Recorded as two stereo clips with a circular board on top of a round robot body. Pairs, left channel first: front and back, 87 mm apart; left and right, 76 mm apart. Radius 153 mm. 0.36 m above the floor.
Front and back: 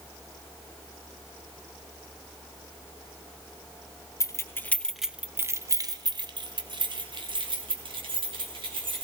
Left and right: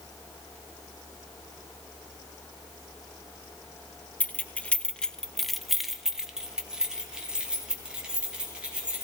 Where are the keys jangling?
25° left, 0.9 m; by 9.1 s 165° right, 2.5 m.